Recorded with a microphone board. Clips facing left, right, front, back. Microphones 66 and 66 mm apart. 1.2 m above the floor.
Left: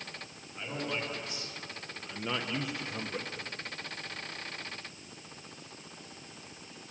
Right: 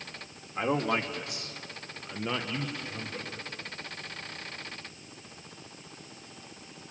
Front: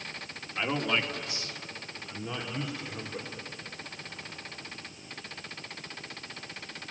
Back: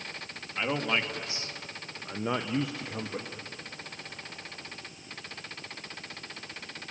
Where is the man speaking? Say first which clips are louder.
Right 8 dB, even; 95° right, 2 m; by 3.3 s 155° left, 2 m.